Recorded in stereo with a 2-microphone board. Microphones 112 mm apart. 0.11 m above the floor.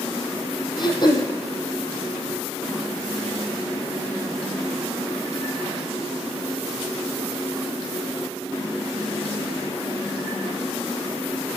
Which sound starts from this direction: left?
Throat clearing, at 0.8 s.